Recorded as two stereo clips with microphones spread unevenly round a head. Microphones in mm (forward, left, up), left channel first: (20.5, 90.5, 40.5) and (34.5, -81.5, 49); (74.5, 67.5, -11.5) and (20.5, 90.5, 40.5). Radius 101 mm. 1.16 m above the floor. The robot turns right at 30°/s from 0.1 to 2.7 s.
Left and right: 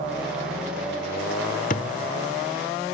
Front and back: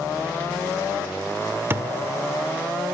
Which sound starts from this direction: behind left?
A thud, at 1.7 s.